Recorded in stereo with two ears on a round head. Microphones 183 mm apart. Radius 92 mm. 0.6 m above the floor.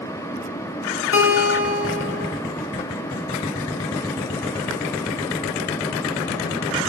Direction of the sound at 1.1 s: 65° left (ahead or behind).